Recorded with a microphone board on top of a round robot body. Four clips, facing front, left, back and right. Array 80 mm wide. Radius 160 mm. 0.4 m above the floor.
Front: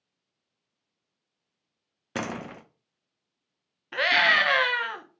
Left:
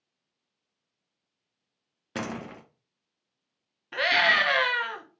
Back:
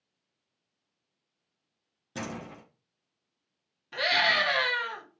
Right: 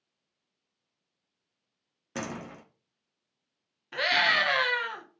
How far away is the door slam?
About 0.6 m.